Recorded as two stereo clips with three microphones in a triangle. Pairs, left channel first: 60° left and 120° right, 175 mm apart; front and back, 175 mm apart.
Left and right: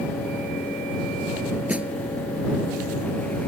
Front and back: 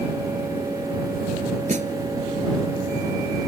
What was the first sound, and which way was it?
A snare drum, 160° left.